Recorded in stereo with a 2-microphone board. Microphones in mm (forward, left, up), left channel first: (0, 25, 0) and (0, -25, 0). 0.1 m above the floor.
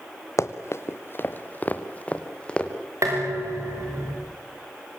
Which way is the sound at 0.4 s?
75° left (ahead or behind).